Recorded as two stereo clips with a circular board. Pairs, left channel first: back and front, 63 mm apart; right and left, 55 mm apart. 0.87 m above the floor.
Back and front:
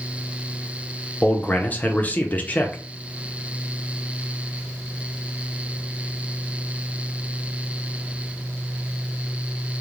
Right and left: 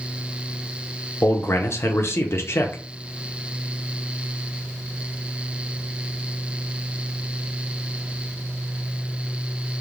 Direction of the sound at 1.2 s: 120° right.